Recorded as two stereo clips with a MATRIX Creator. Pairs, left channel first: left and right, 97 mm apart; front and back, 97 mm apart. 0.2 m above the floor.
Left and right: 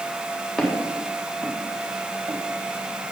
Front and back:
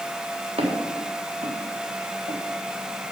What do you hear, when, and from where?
0.6 s footsteps: straight behind, 3.5 m; by 2.4 s 155° right, 2 m